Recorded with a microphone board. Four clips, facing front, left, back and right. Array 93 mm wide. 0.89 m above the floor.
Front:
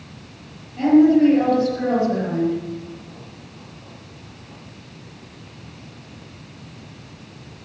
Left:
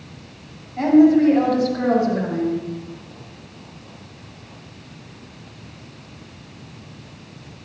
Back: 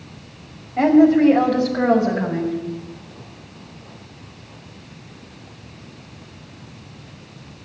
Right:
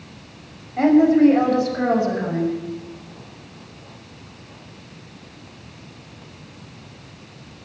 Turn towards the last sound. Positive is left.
turn(degrees=-160)